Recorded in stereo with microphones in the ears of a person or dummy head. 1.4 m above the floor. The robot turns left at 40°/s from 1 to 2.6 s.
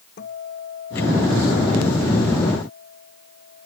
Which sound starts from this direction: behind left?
A guitar, at 0.2 s.